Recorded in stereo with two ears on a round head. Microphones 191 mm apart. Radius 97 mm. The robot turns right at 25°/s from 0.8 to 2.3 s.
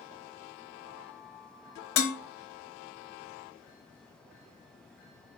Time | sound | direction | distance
2.0 | dishes clattering | 80° left | 0.7 m